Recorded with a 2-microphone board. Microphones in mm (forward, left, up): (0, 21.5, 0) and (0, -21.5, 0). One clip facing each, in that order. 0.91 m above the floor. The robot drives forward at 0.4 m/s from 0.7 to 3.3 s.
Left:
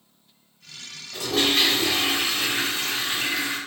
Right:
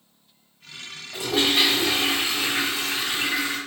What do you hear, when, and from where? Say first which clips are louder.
1.1 s a toilet flushing: right 1 dB; 10° right (ahead or behind), 1.4 m; by 3.6 s 5° right (ahead or behind), 2.5 m